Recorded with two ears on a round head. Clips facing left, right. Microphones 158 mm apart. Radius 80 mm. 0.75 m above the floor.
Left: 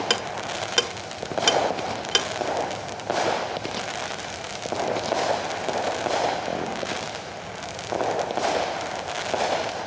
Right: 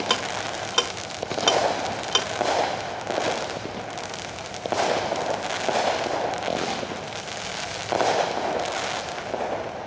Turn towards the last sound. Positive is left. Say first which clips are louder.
# even
turn(degrees=25)  # may be behind; listen again after turning